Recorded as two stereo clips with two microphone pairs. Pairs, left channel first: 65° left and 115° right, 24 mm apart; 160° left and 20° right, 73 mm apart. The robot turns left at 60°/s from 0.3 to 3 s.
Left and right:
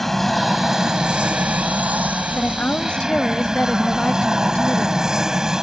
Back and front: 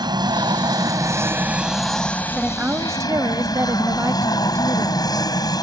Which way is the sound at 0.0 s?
15° right.